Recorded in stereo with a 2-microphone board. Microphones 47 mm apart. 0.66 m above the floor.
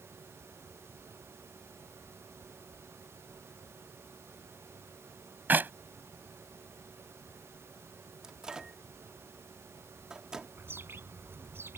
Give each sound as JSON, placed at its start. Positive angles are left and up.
{"t": 5.5, "sound": "a clap", "side_deg": -40}
{"t": 8.2, "sound": "a microwave", "side_deg": -15}
{"t": 10.6, "sound": "a bird", "side_deg": -55}